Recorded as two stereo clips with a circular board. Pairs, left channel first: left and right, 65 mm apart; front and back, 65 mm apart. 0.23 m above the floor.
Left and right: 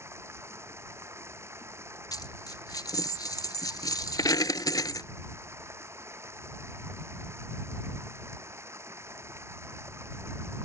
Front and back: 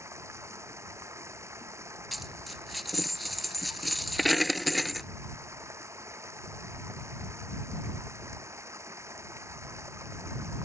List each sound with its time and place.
0.0 s running water: 135° right
2.1 s a dropped coin: 90° left